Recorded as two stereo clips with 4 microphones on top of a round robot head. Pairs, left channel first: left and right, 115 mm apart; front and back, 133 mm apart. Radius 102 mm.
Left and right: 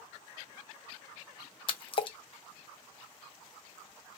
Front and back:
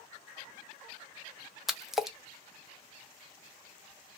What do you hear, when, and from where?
1.7 s a splash: 95° left, 0.7 m